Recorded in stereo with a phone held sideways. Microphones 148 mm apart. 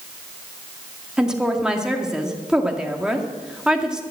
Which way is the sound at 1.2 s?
5° right (ahead or behind).